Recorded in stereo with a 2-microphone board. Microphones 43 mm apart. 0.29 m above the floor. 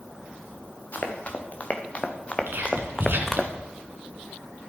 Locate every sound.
0.9 s running footsteps: 40° left (ahead or behind), 2.5 m; by 3.5 s centre (ahead or behind), 1.2 m
2.5 s whispering: 55° right (ahead or behind), 2.5 m